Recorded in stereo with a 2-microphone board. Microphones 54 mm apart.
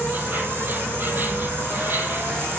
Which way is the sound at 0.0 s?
35° right (ahead or behind).